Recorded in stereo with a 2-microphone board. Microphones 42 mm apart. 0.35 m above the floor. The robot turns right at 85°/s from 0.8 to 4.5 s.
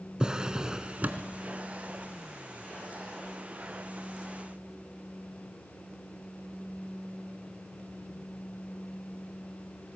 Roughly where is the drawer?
Behind.